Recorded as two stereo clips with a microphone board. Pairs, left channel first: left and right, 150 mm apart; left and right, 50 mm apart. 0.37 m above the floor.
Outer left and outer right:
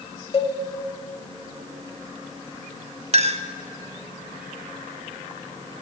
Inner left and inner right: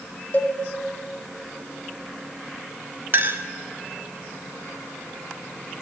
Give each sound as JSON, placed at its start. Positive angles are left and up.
{"t": 0.3, "sound": "a cowbell", "side_deg": 40, "distance_m": 0.9}
{"t": 3.1, "sound": "a clink", "side_deg": -45, "distance_m": 0.6}